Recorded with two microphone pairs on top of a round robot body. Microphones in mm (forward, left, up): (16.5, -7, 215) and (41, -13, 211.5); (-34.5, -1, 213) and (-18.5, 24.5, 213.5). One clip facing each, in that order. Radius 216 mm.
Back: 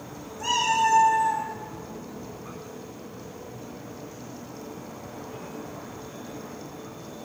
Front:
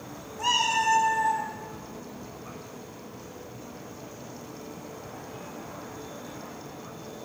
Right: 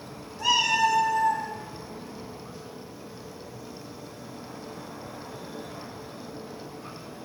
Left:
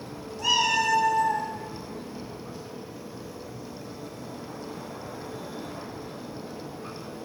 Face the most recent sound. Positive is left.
turn(degrees=-30)